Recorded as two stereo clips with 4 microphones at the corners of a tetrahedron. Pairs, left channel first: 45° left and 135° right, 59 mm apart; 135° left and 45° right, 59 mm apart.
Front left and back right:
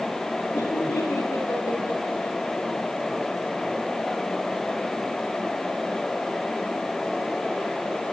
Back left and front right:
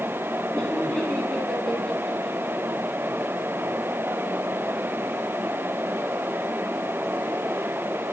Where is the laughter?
70° left, 4.5 m.